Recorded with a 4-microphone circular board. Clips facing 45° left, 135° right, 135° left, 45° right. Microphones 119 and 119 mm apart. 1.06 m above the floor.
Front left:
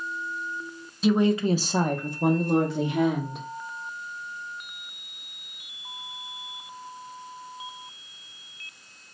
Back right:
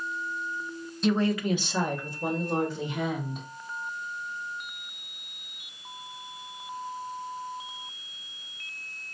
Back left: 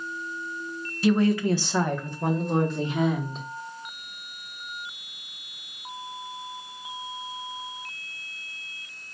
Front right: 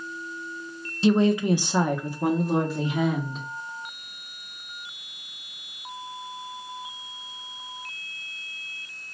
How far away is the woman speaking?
About 0.5 m.